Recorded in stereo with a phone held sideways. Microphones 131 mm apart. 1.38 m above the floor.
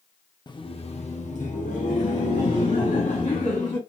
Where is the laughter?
35° left (ahead or behind), 0.6 m; by 3.8 s 80° left, 2.5 m.